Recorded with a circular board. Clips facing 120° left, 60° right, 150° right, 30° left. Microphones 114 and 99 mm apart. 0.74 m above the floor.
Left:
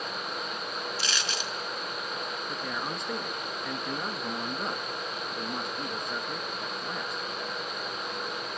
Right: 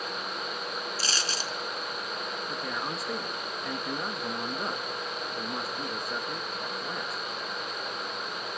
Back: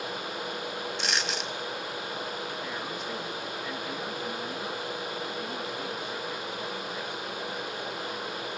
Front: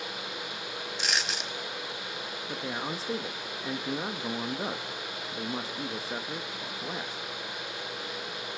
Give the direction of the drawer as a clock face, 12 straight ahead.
No drawer in this recording.